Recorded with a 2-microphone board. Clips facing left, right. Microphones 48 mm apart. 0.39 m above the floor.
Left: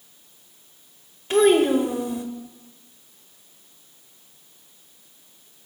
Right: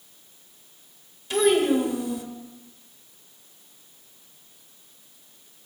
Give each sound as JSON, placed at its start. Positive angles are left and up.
{"t": 1.3, "sound": "a child speaking", "side_deg": 35, "distance_m": 1.1}